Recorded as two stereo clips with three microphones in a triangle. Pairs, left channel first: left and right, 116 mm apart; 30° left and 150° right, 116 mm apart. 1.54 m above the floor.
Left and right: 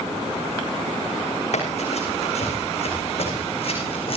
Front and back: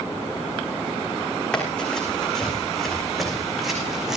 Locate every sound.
1.5 s running footsteps: 115° left, 6.5 m; by 4.2 s 125° left, 5.5 m